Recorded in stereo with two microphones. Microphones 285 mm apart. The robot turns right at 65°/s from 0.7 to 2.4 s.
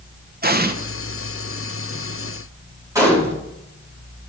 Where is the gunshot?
10° right (ahead or behind), 3 m.